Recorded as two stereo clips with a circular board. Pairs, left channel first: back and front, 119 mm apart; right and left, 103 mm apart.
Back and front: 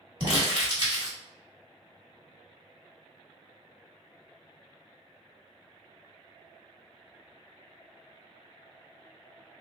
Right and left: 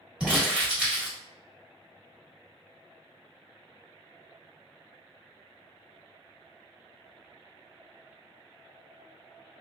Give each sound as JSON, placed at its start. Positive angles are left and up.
{"t": 0.2, "sound": "crumpling", "azimuth_deg": 15, "distance_m": 1.5}